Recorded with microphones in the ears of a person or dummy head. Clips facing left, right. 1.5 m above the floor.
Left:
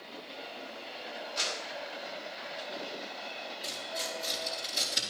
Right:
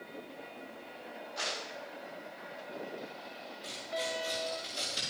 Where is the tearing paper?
35° left (ahead or behind), 6 m.